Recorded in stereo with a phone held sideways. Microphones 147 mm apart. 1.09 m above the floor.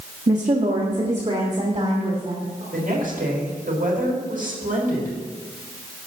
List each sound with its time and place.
0.3 s a woman speaking: 50° right (ahead or behind), 1.3 m; by 2.6 s 45° right (ahead or behind), 3 m
2.7 s a woman speaking: 75° right (ahead or behind), 4.5 m